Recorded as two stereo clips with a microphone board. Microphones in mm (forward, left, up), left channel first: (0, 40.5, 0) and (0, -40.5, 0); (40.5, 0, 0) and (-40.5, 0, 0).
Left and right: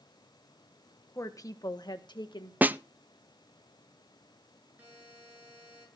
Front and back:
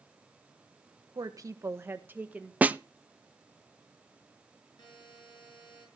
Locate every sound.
1.1 s a woman speaking: 145° left, 1.3 m; by 2.5 s 105° left, 1.9 m
2.6 s a snare drum: 130° right, 0.5 m
4.8 s a buzzer: 20° right, 7 m